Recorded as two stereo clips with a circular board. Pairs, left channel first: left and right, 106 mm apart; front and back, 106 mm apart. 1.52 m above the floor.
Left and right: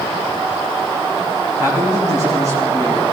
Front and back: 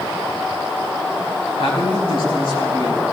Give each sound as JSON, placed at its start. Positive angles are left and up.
{"t": 1.6, "sound": "a man speaking", "azimuth_deg": -30, "distance_m": 4.5}